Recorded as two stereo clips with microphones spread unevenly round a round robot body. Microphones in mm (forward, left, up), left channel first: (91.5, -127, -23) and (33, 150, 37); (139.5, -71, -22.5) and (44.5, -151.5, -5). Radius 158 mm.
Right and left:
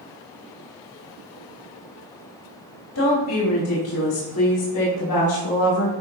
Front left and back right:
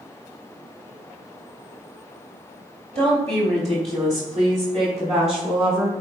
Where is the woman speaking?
105° right, 2.5 m.